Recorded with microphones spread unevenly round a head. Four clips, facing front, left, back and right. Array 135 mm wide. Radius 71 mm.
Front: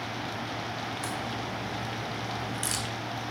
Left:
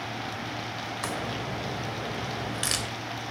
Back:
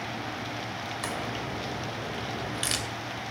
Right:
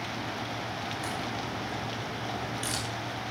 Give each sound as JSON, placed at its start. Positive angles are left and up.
{"t": 1.0, "sound": "a crack", "azimuth_deg": 120, "distance_m": 3.0}